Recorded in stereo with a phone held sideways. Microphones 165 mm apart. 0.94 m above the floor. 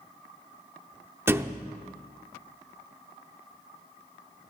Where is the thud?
15° right (ahead or behind), 0.6 m.